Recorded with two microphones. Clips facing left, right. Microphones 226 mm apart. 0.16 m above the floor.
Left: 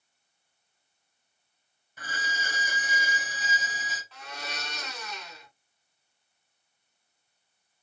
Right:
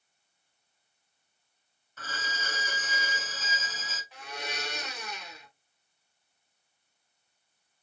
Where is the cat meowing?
I don't hear a cat meowing.